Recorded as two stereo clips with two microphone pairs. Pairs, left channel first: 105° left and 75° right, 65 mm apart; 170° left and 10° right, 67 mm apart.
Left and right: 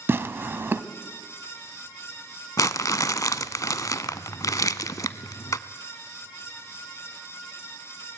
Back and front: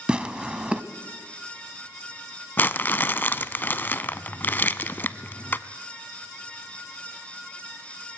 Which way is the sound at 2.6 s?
115° left.